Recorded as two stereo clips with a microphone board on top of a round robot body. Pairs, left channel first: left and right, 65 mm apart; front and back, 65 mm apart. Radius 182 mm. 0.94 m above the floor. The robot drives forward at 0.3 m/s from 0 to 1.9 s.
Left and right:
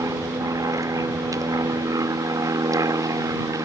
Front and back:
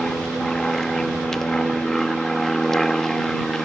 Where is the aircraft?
80° right.